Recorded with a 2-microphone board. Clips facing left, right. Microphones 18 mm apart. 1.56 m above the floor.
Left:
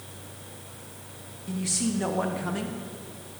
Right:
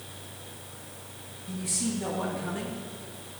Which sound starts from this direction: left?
A man speaking, at 1.5 s.